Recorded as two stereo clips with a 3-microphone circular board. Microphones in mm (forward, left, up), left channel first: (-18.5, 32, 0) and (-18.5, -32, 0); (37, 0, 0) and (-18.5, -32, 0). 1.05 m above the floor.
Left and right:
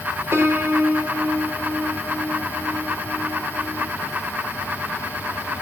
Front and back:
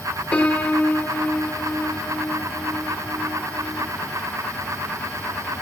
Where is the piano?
40° right, 2 m.